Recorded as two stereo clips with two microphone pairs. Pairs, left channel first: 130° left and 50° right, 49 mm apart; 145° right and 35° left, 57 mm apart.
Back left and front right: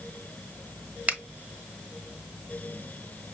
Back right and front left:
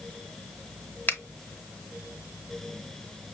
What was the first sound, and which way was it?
A finger snap, 95° right.